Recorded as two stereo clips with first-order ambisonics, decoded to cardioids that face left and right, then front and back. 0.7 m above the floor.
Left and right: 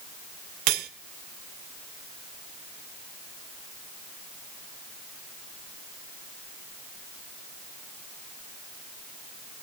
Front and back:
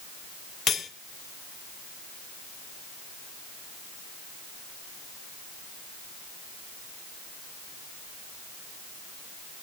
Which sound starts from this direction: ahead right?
Cutlery clinking, at 0.7 s.